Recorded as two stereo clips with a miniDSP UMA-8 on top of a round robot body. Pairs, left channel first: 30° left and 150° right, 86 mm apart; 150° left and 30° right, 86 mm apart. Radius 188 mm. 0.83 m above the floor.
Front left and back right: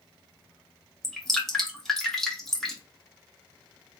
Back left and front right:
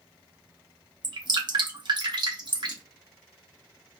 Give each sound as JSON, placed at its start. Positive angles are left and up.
{"t": 1.0, "sound": "dripping", "azimuth_deg": -55, "distance_m": 1.8}